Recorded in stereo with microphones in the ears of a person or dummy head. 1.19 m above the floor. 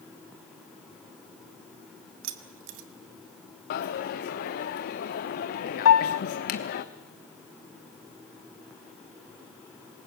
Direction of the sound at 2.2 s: 80° right.